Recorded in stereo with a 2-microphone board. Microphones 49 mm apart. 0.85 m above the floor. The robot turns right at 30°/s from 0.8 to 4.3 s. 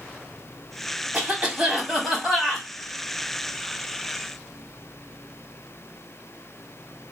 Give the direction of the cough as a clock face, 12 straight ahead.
1 o'clock.